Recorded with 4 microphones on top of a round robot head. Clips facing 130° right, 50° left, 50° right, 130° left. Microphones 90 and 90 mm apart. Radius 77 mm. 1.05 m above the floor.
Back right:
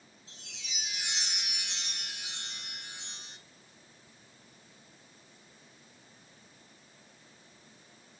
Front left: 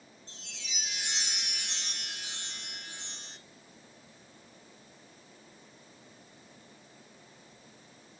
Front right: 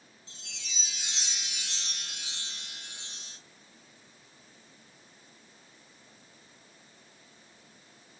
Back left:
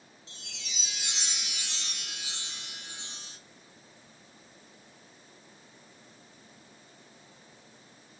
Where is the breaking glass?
No breaking glass in this recording.